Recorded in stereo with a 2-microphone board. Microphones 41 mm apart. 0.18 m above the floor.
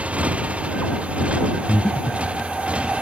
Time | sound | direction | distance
0.0 | a motorcycle | 30° right (ahead or behind) | ?
1.7 | breathing | 30° left (ahead or behind) | ?